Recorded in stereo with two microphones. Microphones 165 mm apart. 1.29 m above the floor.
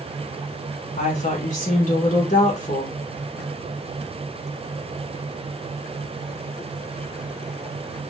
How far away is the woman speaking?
About 1.6 m.